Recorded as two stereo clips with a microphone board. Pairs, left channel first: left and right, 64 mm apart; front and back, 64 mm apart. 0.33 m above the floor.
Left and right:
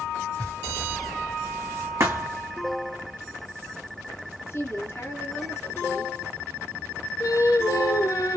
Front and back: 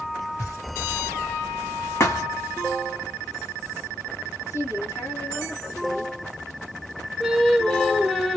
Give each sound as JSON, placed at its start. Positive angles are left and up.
{"t": 0.4, "sound": "knocking", "azimuth_deg": 30, "distance_m": 3.0}
{"t": 2.0, "sound": "a thud", "azimuth_deg": -50, "distance_m": 1.9}
{"t": 4.4, "sound": "a woman speaking", "azimuth_deg": 40, "distance_m": 4.0}
{"t": 7.2, "sound": "singing", "azimuth_deg": 85, "distance_m": 1.0}